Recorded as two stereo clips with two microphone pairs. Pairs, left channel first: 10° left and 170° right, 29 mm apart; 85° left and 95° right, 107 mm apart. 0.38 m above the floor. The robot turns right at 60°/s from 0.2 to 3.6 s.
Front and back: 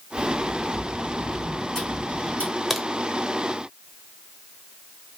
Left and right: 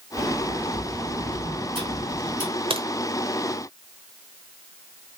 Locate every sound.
0.2 s a sliding door: 155° right, 3 m; by 2.5 s 15° right, 3 m
2.7 s a crack: 80° right, 1.0 m; by 2.9 s 70° right, 1.0 m